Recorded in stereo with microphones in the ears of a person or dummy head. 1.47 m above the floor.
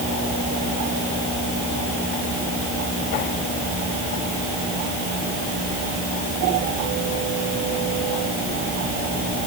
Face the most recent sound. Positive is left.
No sound to turn to.